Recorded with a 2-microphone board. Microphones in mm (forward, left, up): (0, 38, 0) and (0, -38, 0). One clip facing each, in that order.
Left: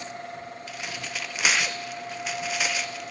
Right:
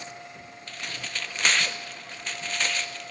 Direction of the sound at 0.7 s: 10° left (ahead or behind).